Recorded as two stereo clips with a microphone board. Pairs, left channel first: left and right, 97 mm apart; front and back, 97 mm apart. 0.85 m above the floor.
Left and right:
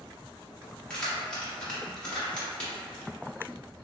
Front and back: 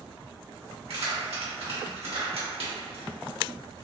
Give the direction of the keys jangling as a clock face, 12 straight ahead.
6 o'clock.